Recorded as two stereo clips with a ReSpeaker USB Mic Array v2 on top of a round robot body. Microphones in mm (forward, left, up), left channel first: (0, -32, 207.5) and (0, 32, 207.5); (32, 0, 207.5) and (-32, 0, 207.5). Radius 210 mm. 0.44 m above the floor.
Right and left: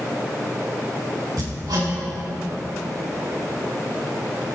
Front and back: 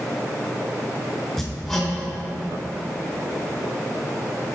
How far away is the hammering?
About 3.5 m.